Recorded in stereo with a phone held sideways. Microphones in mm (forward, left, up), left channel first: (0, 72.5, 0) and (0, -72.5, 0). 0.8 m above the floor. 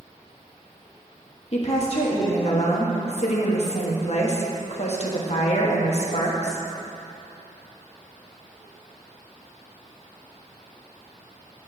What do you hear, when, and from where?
1.5 s a woman speaking: 50° left (ahead or behind), 1.2 m